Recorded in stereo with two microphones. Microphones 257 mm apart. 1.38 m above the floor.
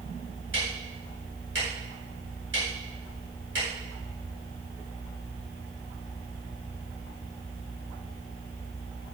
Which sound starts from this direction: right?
Ticking, at 0.5 s.